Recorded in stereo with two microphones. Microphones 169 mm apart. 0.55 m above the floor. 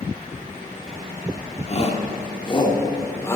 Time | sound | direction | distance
1.7 | a shout | 45° left (ahead or behind) | 1.6 m